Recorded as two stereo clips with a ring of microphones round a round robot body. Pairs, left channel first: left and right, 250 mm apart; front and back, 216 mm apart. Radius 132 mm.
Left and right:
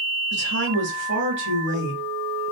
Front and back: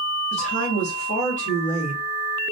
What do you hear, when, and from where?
0.3 s a woman speaking: 55° right, 2 m